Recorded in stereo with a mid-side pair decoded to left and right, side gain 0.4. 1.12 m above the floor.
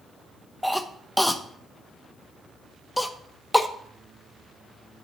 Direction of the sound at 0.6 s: 10° left.